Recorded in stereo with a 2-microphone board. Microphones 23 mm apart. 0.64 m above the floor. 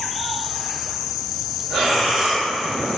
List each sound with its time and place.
1.7 s breathing: 20° right (ahead or behind), 0.7 m